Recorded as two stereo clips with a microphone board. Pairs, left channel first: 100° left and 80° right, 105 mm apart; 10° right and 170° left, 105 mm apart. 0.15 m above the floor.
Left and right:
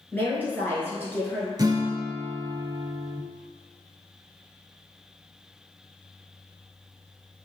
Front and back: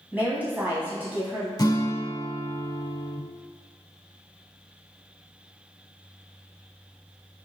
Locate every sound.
0.1 s a woman speaking: 130° left, 1.2 m
1.6 s a guitar: 50° right, 0.5 m